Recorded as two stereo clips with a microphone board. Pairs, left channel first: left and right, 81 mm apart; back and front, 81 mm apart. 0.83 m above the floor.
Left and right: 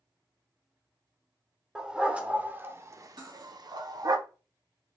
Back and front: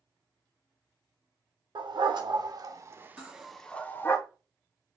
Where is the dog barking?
10° right, 0.9 m; by 4.2 s 125° right, 0.7 m.